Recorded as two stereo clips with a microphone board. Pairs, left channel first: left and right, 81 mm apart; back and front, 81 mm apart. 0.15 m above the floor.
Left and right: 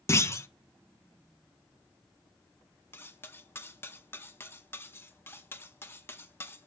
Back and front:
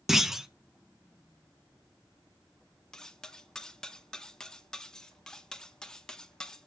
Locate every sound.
0.1 s a clunk: 80° left, 0.6 m
2.9 s cutlery clinking: 105° left, 0.7 m